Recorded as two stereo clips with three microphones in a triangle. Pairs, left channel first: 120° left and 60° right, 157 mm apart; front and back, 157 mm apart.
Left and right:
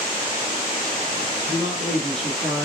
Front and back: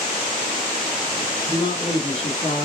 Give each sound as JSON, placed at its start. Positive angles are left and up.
{"t": 1.5, "sound": "a man speaking", "azimuth_deg": 50, "distance_m": 1.7}